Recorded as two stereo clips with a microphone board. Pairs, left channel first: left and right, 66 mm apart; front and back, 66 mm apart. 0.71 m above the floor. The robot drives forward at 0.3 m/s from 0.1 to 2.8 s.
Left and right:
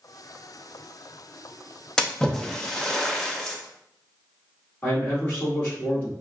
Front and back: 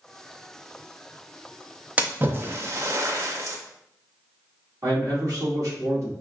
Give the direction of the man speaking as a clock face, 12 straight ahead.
7 o'clock.